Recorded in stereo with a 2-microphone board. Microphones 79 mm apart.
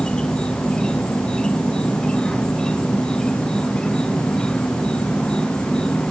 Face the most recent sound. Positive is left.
turn(degrees=10)  # may be behind; listen again after turning